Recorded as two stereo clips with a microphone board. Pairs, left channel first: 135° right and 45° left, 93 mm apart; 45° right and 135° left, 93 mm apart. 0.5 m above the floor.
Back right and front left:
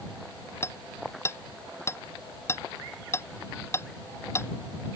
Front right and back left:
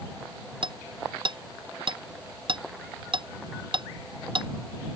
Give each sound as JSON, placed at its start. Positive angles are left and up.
{"t": 0.6, "sound": "hammering", "azimuth_deg": 165}